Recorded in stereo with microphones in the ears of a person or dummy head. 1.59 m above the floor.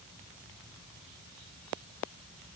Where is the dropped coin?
I don't hear a dropped coin.